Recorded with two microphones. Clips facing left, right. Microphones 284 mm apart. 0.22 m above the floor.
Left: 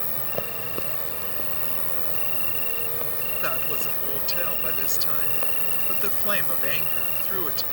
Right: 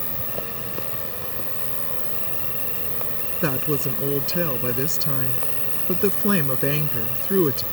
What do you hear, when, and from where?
0.0 s an insect: 50° right (ahead or behind)
3.4 s a woman speaking: 60° right (ahead or behind)